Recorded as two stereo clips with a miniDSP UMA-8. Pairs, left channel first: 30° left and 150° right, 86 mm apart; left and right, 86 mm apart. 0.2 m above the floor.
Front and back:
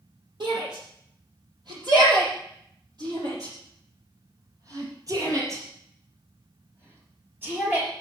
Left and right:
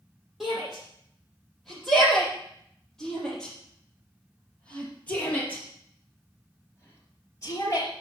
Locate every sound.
0.4 s a shout: straight behind, 9 m; by 7.9 s 135° left, 4.5 m